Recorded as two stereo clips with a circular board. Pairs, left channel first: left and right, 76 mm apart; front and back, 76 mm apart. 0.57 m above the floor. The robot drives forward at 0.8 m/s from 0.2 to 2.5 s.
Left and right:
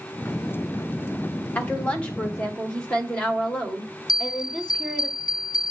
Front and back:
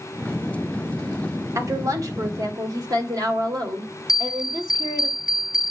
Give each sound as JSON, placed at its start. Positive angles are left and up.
{"t": 1.6, "sound": "a woman speaking", "azimuth_deg": 155, "distance_m": 1.7}
{"t": 4.1, "sound": "a bell", "azimuth_deg": 105, "distance_m": 2.0}